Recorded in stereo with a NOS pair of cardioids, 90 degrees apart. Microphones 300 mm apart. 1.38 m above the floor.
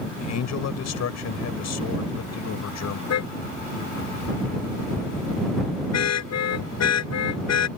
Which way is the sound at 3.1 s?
60° left.